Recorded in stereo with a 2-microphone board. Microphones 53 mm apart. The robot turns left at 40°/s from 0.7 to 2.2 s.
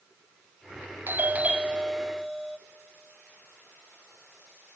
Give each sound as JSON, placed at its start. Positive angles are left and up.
{"t": 1.1, "sound": "a doorbell", "azimuth_deg": -135, "distance_m": 0.6}